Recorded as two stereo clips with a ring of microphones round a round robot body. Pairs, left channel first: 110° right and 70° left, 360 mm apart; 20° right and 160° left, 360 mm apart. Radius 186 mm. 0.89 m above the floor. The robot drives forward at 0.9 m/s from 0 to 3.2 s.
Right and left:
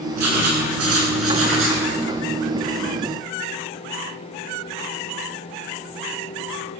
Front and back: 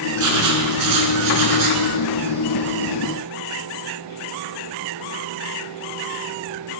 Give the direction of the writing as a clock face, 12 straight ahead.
8 o'clock.